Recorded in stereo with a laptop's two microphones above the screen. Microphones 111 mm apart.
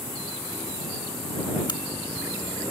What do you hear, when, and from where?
1.7 s a crack: 40° left (ahead or behind)